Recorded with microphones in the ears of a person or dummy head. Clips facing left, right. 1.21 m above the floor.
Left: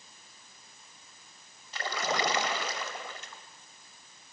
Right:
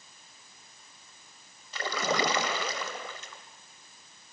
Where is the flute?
No flute in this recording.